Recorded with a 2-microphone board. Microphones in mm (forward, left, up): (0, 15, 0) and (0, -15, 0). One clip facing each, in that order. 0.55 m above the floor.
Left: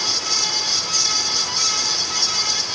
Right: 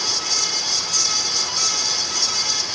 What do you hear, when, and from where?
Only background noise.